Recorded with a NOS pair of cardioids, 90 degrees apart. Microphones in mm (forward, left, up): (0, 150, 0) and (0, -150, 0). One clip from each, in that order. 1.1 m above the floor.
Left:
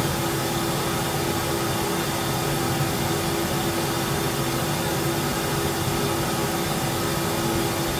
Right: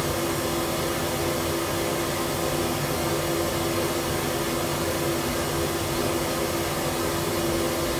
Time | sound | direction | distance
0.0 | a fan | 40° left | 3 m